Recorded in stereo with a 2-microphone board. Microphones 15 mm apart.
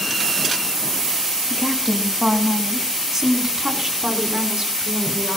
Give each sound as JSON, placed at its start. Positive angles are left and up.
{"t": 1.5, "sound": "a woman speaking", "side_deg": 0, "distance_m": 4.0}